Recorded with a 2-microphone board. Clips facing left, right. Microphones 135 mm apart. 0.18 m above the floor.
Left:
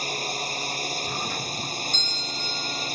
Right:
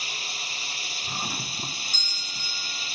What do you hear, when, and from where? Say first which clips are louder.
0.0 s a drone: left 9 dB; 45° left (ahead or behind)
1.1 s a doorbell: left 4 dB; 10° right (ahead or behind)